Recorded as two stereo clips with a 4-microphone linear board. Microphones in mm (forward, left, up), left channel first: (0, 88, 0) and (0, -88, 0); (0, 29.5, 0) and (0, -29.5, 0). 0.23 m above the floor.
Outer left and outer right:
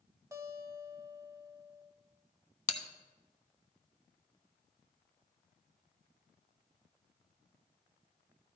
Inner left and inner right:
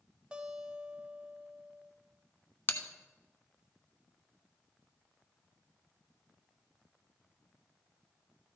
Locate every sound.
0.3 s a guitar: 20° right (ahead or behind), 0.9 m
2.7 s a bell: 40° left (ahead or behind), 0.7 m